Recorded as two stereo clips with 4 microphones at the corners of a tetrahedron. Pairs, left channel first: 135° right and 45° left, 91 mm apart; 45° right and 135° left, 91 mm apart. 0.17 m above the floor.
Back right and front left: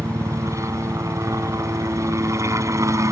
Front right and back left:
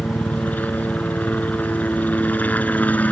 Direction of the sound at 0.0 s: 20° left.